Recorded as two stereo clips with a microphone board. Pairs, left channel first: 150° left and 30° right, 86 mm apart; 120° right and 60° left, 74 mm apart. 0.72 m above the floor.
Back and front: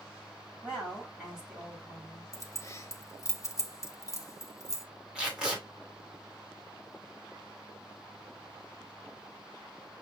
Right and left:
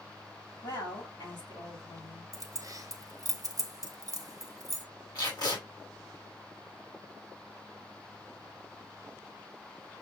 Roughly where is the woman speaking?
Right.